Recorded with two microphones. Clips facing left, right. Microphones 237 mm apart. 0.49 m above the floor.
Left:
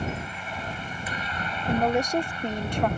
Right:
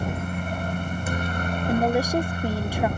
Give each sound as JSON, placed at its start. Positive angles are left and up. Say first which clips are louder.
{"t": 0.0, "sound": "a helicopter", "louder": "right 4 dB", "side_deg": -50}
{"t": 1.7, "sound": "a woman speaking", "louder": "right 1 dB", "side_deg": -10}